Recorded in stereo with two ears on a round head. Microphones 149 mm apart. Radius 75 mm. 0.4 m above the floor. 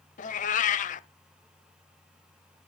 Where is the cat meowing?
50° left (ahead or behind), 0.6 m.